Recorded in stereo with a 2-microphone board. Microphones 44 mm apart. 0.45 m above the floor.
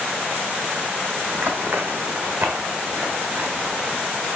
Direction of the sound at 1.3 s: 60° right (ahead or behind).